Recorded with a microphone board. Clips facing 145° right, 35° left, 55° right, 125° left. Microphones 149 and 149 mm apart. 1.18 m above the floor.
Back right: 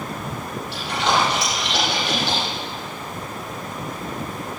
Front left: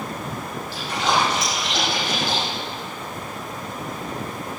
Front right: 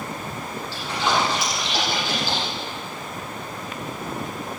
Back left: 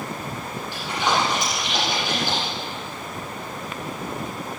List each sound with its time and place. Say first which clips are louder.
0.7 s a splash: back right 1 dB, even; 160° right, 6.5 m